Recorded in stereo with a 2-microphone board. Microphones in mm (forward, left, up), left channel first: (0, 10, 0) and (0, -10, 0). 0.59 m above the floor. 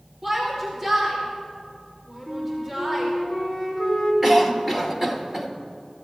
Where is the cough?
15° right (ahead or behind), 1.9 m.